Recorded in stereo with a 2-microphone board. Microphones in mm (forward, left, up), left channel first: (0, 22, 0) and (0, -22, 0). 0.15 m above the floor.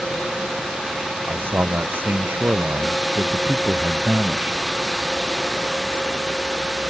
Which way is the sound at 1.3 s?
55° right (ahead or behind).